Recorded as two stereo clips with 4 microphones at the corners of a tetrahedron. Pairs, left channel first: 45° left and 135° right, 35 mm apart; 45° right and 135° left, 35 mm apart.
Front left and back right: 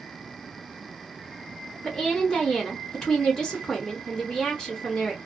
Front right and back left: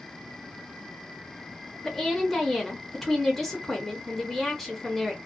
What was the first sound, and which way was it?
A woman speaking, 25° left.